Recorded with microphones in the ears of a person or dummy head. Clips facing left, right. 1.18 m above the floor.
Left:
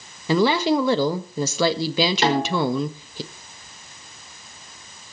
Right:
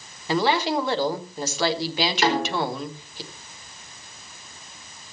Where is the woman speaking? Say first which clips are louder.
Left 4 dB; 70° left (ahead or behind), 1.2 m.